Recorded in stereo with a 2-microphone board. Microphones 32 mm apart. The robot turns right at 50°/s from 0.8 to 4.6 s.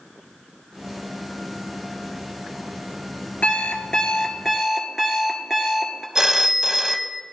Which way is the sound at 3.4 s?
125° left.